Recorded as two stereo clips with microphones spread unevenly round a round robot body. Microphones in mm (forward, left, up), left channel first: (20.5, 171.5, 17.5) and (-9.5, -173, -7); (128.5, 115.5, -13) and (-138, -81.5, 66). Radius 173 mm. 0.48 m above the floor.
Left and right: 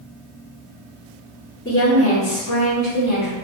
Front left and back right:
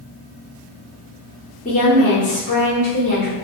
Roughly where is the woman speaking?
Ahead left.